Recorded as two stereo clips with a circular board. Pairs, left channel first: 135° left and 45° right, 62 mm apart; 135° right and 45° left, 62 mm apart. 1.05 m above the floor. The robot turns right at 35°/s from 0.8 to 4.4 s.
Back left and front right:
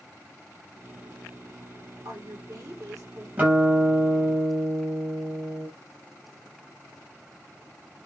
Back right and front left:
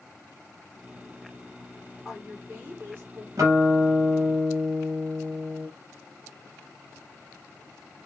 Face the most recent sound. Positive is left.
turn(degrees=50)